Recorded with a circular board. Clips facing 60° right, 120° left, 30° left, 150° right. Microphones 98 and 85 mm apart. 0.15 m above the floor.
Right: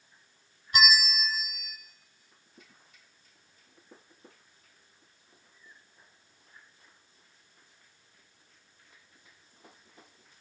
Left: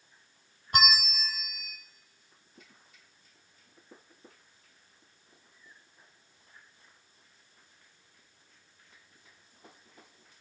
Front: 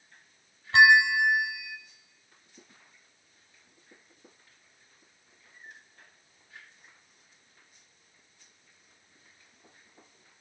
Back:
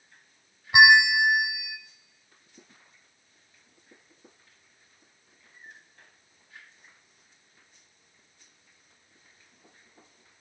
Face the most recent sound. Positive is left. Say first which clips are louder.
# right 2 dB, back 2 dB
turn(degrees=135)